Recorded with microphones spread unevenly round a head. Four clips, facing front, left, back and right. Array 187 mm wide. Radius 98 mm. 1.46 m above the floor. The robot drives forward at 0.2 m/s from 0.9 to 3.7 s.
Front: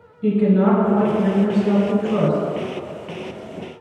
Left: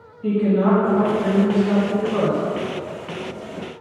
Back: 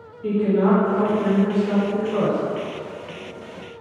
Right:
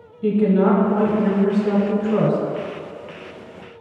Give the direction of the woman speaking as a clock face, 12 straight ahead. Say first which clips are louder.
Right 2 dB, front 2 dB; 2 o'clock.